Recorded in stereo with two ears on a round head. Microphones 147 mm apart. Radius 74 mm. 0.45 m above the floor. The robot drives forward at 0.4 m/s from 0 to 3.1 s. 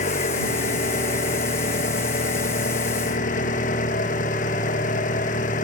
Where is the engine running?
45° left (ahead or behind).